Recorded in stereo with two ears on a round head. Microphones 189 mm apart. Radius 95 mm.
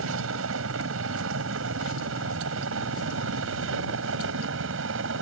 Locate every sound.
0.0 s a helicopter: 75° right (ahead or behind); by 5.2 s 70° right (ahead or behind)